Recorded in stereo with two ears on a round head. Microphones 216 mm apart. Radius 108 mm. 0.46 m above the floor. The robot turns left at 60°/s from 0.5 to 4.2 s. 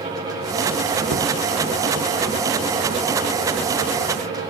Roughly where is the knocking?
Right.